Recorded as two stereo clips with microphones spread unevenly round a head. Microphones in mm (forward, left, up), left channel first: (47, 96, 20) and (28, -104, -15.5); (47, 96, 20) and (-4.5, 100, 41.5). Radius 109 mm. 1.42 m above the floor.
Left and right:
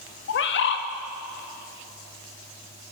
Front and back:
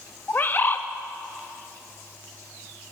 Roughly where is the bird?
Ahead left.